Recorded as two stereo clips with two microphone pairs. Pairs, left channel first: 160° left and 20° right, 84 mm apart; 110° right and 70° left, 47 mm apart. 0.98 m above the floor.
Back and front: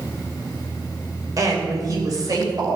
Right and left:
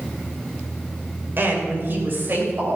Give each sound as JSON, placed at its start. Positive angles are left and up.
{"t": 1.4, "sound": "a woman speaking", "azimuth_deg": 25, "distance_m": 3.5}